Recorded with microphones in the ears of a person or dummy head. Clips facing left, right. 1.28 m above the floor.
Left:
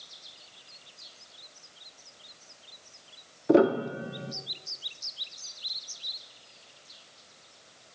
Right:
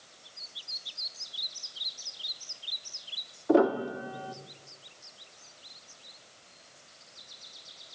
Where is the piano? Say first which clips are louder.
Left 2 dB; 25° left (ahead or behind), 1.5 m.